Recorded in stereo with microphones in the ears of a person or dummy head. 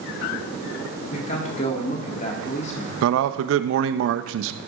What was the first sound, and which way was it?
A man speaking, 45° left (ahead or behind).